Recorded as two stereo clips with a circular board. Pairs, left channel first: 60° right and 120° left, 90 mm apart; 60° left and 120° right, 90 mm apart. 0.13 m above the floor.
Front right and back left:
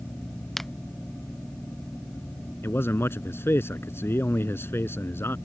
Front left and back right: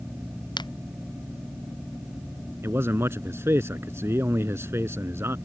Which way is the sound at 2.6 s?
90° right.